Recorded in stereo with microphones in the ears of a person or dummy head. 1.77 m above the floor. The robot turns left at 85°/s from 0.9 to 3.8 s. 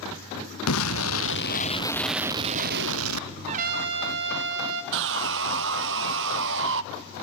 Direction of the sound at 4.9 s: 60° right (ahead or behind).